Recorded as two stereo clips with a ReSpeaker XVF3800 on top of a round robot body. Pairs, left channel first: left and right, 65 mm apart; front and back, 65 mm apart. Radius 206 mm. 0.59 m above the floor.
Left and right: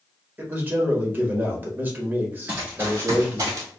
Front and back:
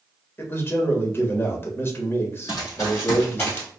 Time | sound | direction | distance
0.4 | a man speaking | 40° right | 1.5 m
2.5 | running footsteps | 20° right | 0.7 m